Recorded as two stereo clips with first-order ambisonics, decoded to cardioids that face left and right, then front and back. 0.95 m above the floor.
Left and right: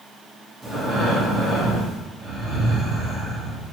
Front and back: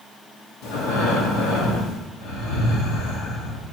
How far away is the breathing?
About 1.5 m.